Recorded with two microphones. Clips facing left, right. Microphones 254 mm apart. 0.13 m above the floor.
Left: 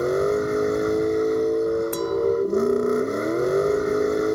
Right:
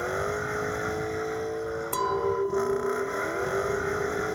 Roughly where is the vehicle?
Left.